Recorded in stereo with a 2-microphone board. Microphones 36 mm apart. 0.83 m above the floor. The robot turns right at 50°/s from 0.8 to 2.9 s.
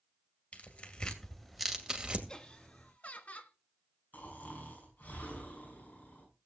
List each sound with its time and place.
0.5 s tearing paper: 35° left (ahead or behind), 2 m; by 2.2 s 35° right (ahead or behind), 2 m
2.3 s laughter: 25° left, 1.4 m; by 3.5 s 55° left, 1.4 m
4.1 s snoring: 60° left (ahead or behind), 6 m